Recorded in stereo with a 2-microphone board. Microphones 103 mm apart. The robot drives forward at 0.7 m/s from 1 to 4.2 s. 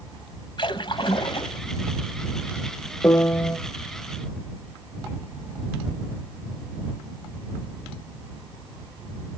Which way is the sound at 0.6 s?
50° left (ahead or behind).